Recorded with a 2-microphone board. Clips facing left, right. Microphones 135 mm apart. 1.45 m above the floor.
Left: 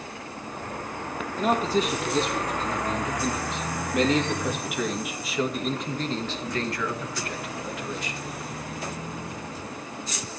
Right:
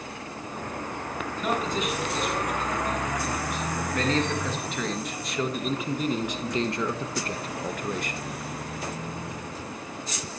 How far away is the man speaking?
About 4.5 m.